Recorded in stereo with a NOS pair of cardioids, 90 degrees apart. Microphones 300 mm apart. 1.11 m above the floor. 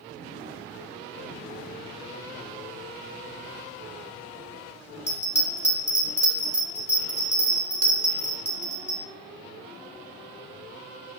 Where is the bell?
20° left, 1.0 m.